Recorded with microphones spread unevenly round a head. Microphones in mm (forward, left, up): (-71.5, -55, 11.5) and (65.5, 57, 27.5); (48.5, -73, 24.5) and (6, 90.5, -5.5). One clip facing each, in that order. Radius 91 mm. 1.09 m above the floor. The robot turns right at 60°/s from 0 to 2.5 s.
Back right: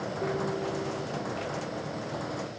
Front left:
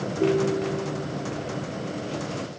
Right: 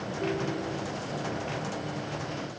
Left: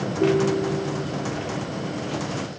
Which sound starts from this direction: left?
A ringtone, at 0.2 s.